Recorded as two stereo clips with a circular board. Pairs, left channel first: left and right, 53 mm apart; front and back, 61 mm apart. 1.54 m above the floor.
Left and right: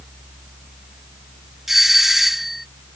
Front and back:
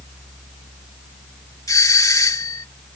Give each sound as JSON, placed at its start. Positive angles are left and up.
{"t": 1.7, "sound": "a doorbell", "azimuth_deg": -5}